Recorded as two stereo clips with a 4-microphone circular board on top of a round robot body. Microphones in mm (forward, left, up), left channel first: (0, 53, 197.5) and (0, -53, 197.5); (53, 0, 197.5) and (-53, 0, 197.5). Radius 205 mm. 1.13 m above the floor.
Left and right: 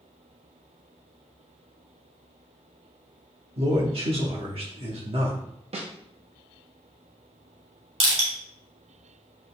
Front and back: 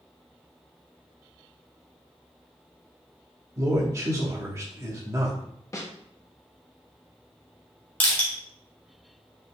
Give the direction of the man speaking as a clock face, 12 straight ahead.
4 o'clock.